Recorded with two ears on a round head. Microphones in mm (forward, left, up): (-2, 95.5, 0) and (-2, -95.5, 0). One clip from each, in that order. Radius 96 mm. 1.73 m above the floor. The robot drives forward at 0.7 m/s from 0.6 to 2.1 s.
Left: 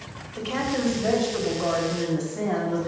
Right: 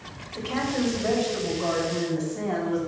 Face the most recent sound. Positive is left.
turn(degrees=0)  # may be behind; listen again after turning